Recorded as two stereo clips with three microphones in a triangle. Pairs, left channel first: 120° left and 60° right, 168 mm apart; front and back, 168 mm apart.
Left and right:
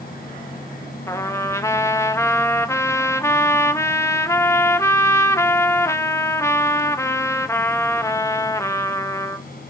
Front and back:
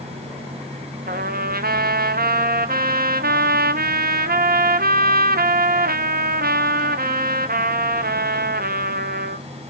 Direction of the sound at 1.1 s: 165° right.